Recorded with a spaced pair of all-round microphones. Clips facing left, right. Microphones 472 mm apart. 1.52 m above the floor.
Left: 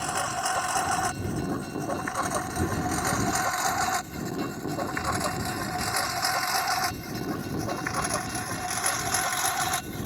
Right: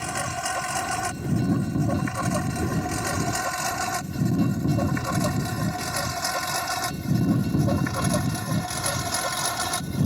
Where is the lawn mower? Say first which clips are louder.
Right 1 dB; 40° right (ahead or behind); by 10.1 s 60° right (ahead or behind).